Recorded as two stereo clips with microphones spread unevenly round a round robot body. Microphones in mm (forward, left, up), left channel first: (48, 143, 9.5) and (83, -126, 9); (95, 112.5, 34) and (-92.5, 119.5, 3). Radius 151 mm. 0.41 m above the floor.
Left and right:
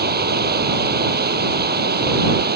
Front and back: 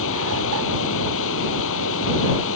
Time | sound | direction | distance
0.0 | running water | 30° right | ?